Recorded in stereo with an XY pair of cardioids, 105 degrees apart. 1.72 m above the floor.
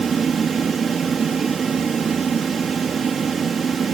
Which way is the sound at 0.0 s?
40° right.